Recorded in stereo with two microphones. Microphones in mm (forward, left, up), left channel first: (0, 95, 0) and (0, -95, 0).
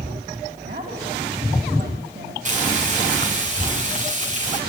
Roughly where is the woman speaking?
Right.